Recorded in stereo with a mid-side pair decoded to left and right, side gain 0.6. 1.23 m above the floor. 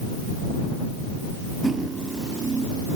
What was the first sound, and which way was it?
Cutlery clinking, 25° right.